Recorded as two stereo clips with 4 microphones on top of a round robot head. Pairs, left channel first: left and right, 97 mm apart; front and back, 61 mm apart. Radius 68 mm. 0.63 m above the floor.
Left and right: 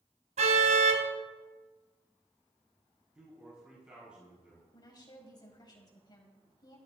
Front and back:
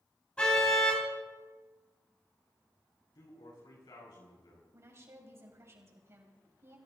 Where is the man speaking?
10° right, 6 m.